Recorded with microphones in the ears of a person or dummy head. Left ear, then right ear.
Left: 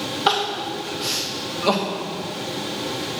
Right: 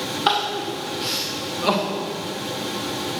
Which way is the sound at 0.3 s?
Centre (ahead or behind).